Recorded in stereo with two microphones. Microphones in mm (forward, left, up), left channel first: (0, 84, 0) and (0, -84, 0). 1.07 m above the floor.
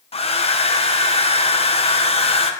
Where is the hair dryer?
35° left (ahead or behind), 0.5 m.